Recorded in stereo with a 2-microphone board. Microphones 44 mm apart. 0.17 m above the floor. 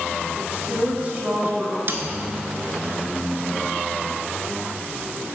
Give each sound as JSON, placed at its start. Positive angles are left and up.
{"t": 0.3, "sound": "a woman speaking", "side_deg": -20, "distance_m": 1.2}
{"t": 1.9, "sound": "a snare drum", "side_deg": -50, "distance_m": 0.6}